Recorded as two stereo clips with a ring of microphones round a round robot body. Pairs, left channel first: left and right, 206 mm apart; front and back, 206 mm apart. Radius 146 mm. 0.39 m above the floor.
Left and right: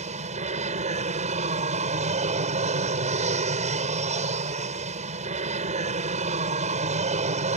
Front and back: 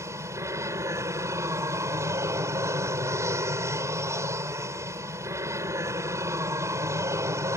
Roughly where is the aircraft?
Right.